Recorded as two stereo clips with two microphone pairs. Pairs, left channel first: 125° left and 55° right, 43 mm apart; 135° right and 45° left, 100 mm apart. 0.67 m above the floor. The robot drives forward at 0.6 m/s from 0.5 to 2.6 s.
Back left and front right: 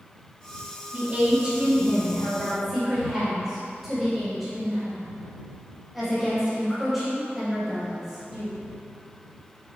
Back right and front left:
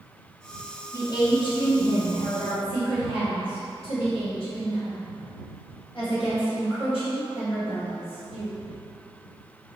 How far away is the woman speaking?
About 1.0 m.